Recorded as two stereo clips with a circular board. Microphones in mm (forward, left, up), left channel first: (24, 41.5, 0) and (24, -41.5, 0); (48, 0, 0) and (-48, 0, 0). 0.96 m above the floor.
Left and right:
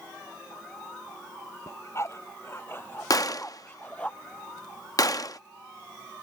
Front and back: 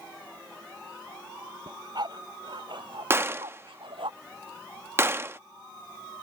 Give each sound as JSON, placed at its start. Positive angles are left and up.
{"t": 1.7, "sound": "a dog barking", "azimuth_deg": 140}
{"t": 3.1, "sound": "a gunshot", "azimuth_deg": 120}